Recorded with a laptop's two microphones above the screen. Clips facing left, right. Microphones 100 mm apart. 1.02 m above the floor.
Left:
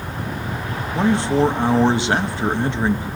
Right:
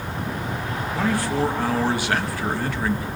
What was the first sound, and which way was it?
A man speaking, 25° left (ahead or behind).